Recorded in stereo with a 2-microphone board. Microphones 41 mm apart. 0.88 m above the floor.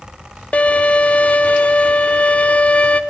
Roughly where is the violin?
Left.